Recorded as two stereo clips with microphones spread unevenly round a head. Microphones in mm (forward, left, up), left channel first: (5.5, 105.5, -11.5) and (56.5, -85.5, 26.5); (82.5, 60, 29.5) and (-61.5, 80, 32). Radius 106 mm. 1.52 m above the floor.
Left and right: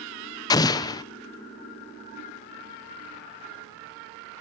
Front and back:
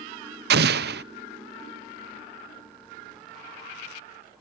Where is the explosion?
Straight behind, 0.6 m.